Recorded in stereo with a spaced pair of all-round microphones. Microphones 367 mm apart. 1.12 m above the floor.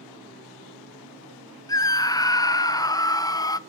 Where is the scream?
10° left (ahead or behind), 0.6 m.